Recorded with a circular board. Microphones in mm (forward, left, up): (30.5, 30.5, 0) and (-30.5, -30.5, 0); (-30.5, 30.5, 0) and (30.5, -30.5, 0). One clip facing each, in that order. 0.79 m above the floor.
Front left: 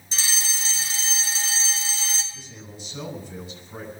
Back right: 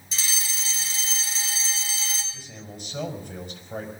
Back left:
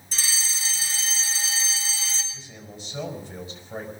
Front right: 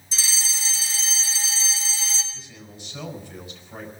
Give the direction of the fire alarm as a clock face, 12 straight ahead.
9 o'clock.